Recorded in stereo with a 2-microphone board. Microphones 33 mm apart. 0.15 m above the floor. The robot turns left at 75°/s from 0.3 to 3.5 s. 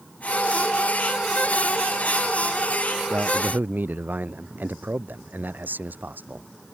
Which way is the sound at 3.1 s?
60° right (ahead or behind).